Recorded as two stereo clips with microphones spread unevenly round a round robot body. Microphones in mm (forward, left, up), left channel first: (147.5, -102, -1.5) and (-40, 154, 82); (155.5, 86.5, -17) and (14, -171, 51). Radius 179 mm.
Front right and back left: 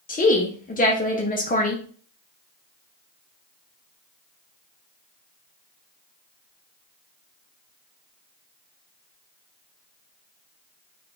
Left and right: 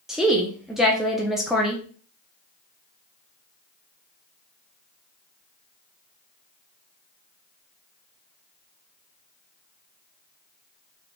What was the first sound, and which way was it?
A woman speaking, 20° right.